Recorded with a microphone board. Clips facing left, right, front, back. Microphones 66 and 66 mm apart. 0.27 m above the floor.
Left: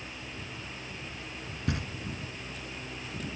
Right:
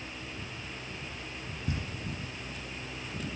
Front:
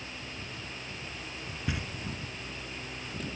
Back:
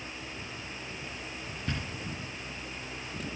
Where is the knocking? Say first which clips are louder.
Left 3 dB, front 1 dB; 80° left, 2.5 m.